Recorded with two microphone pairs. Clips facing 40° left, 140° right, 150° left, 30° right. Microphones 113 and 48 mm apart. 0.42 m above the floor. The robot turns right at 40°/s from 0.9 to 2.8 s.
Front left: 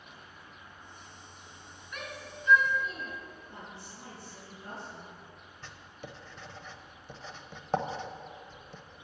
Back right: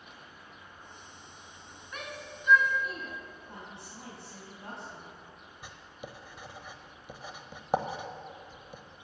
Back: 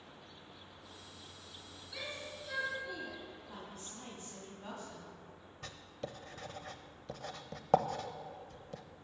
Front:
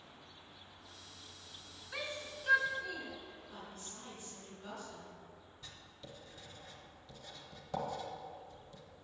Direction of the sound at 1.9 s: 85° right.